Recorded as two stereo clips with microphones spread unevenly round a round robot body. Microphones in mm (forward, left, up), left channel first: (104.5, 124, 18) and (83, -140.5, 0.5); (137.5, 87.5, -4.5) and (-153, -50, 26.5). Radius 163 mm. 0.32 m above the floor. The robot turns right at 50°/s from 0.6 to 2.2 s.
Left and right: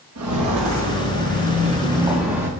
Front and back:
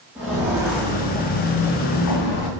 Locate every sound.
0.1 s footsteps: 70° right, 3 m; by 2.5 s 10° right, 2.0 m